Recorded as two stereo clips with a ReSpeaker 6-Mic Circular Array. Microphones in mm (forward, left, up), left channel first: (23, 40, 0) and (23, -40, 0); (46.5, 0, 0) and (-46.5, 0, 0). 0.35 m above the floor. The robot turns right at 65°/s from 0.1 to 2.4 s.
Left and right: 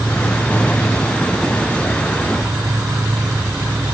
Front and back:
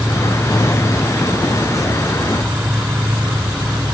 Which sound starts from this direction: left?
An insect, at 0.0 s.